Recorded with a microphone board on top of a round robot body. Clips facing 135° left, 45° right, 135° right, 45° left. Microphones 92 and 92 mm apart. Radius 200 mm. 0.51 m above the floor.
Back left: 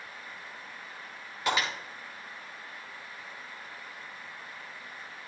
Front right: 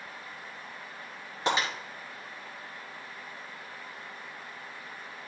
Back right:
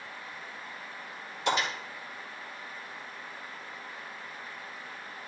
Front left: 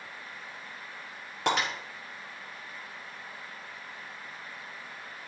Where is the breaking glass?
15° left, 5 m.